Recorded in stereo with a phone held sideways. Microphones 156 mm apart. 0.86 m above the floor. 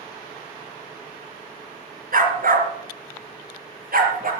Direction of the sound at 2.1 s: 70° right (ahead or behind).